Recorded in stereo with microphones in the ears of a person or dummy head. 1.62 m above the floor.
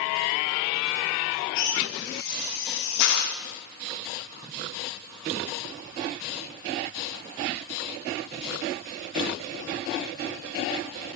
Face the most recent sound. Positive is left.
turn(degrees=50)  # may be behind; listen again after turning